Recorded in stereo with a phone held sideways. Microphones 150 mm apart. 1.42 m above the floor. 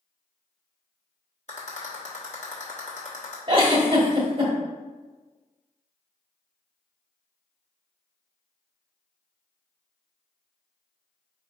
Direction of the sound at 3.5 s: 35° right (ahead or behind).